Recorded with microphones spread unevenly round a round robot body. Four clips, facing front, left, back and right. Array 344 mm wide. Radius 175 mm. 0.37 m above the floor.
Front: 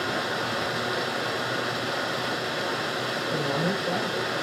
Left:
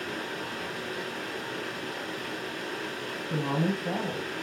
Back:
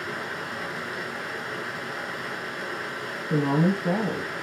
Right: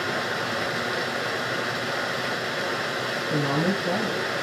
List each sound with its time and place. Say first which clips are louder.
0.0 s running water: right 7 dB, front 5 dB; 55° right, 1.6 m
3.3 s a woman speaking: right 4 dB, back 6 dB; 170° right, 2.5 m